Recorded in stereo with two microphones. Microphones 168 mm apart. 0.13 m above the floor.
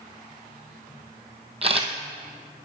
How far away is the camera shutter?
About 1.2 m.